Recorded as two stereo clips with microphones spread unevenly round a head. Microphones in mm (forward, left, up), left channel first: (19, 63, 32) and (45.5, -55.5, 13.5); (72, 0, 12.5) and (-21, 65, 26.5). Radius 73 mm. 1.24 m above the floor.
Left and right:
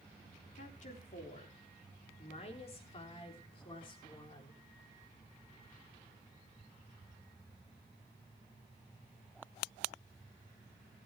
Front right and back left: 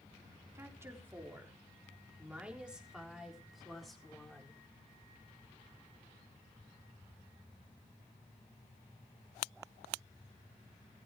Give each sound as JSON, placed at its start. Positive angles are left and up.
{"t": 0.6, "sound": "a woman speaking", "azimuth_deg": 80, "distance_m": 3.5}